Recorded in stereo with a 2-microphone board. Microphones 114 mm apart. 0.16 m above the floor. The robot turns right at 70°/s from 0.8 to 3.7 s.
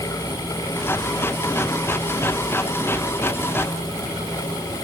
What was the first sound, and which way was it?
Only background noise.